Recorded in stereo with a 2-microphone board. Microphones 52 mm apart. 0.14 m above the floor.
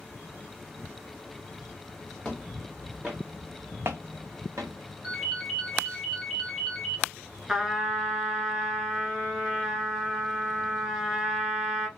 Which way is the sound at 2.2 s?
10° left (ahead or behind).